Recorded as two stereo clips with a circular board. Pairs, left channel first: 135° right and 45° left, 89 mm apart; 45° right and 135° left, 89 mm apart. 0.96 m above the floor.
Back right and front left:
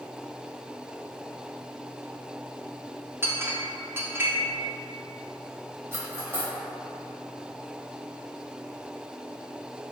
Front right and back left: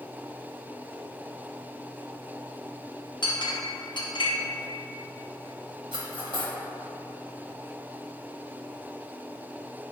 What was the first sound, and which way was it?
A clink, 20° right.